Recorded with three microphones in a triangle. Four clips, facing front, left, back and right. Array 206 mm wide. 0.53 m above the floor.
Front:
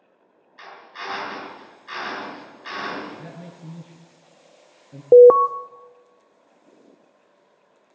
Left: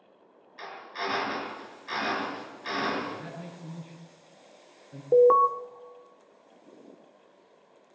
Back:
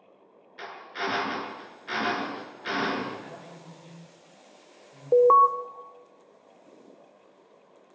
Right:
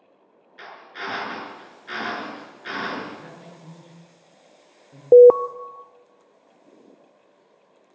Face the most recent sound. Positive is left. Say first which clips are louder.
# right 9 dB, front 8 dB
turn(degrees=-45)